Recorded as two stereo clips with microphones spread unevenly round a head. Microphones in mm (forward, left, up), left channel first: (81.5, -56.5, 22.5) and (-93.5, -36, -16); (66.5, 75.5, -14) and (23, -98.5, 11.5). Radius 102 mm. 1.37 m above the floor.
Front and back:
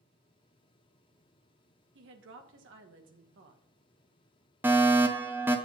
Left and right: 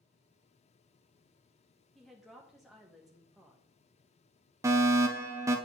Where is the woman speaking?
165° left, 1.6 m.